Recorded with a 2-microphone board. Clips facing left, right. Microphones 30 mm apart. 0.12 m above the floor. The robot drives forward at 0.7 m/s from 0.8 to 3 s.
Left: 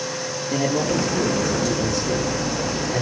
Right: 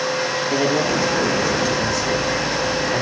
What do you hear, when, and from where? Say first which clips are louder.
0.5 s a man speaking: right 1 dB; 45° right (ahead or behind), 4 m; by 3.0 s 60° right (ahead or behind), 3.5 m